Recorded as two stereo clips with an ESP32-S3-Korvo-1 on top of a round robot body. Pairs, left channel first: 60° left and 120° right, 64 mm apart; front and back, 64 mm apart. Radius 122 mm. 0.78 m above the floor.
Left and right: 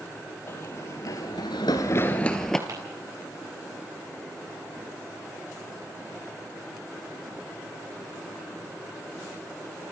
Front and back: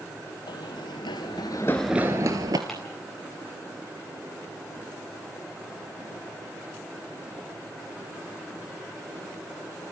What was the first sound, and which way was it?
Running footsteps, 5° left.